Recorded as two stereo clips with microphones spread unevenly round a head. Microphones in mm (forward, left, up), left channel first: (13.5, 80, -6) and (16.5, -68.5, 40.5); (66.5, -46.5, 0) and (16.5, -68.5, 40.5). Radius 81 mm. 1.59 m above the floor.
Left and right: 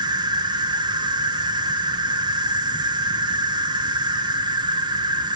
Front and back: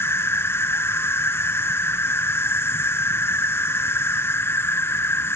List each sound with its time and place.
0.0 s an insect: 30° right